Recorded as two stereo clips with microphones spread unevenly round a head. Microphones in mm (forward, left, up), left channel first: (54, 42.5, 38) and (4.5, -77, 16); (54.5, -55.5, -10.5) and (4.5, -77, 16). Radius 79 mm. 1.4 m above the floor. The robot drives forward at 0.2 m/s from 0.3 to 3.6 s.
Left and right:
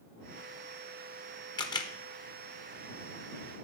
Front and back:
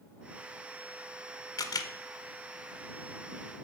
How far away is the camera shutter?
About 0.7 m.